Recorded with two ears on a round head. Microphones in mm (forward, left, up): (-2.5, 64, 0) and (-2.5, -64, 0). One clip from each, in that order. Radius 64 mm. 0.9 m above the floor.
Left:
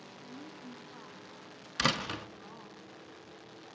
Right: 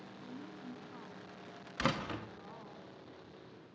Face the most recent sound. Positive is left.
turn(degrees=75)  # may be behind; listen again after turning